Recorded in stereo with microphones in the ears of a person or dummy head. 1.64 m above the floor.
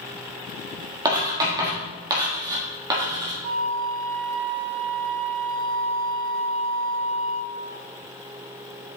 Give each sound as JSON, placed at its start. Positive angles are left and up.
{"t": 1.1, "sound": "writing", "side_deg": -20, "distance_m": 1.6}
{"t": 3.4, "sound": "a flute", "side_deg": -60, "distance_m": 1.4}